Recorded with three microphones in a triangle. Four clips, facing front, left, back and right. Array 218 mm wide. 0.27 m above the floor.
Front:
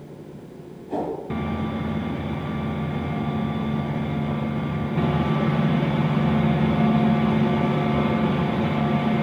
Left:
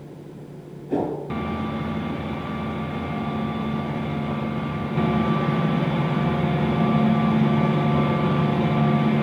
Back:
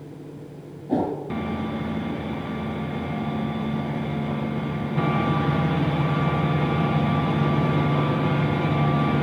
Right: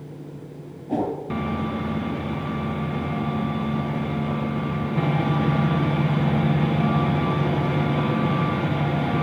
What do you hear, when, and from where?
0.9 s a whoosh: 155° right, 3 m